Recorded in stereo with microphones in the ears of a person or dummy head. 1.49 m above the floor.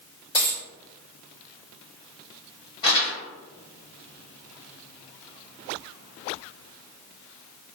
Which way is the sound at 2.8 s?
20° left (ahead or behind).